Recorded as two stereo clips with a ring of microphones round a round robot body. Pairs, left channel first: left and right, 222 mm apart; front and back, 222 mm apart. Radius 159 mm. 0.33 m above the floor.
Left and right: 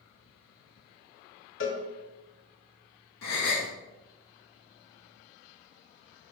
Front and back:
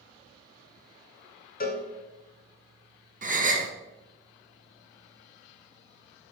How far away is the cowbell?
About 0.8 m.